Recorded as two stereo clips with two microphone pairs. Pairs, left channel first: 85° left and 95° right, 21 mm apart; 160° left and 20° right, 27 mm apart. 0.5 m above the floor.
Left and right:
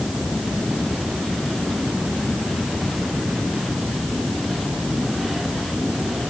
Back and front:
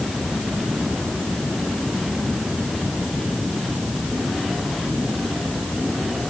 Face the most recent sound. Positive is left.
No sound to turn to.